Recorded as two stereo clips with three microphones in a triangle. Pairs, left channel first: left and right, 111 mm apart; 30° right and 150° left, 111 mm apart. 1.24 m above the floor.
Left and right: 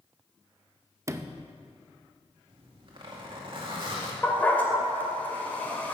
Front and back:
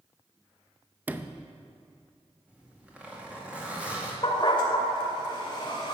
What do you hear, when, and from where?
1.1 s a sliding door: 140° right, 0.5 m
2.5 s a zipper: 130° right, 2 m
4.2 s a dog barking: 15° left, 2 m